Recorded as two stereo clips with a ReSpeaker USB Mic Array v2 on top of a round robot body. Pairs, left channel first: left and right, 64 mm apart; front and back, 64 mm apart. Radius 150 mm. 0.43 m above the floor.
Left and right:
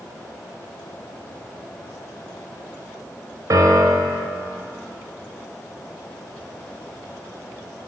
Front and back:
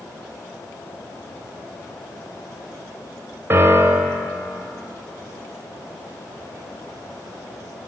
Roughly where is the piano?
Behind right.